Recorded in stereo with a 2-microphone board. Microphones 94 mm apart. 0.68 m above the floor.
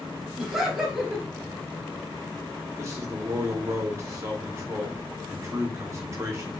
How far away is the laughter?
About 1.3 m.